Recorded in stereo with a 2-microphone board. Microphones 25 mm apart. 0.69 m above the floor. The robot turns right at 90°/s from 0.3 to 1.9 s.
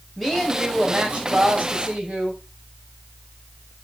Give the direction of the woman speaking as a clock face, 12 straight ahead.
6 o'clock.